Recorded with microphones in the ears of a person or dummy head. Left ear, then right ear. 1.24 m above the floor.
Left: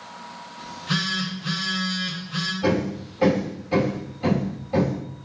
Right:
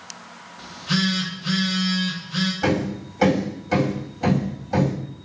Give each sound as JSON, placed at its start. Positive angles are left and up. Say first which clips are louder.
{"t": 0.6, "sound": "a phone buzzing", "louder": "right 2 dB", "side_deg": 20, "distance_m": 2.0}
{"t": 2.6, "sound": "hammering", "louder": "right 1 dB", "side_deg": -50, "distance_m": 3.0}